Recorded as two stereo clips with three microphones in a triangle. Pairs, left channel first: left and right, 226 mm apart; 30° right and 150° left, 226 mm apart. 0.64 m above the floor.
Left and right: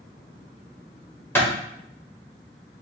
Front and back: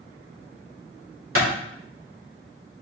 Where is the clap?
170° left, 1.6 m.